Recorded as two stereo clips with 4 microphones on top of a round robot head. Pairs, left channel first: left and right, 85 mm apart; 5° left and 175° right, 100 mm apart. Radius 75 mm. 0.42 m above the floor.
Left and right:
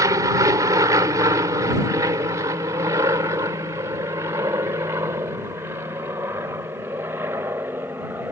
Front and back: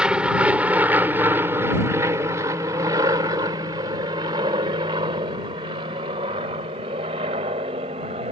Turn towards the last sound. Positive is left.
turn(degrees=-160)